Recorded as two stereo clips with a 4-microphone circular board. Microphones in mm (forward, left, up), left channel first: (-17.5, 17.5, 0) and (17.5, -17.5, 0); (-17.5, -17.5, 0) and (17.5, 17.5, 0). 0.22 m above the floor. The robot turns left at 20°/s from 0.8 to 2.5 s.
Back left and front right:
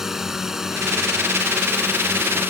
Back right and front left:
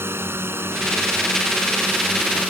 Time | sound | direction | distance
0.0 | a drone | 35° left | ?